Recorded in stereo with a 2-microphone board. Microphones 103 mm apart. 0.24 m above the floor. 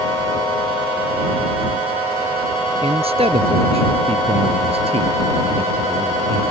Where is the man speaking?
70° right (ahead or behind); by 6.4 s 55° right (ahead or behind).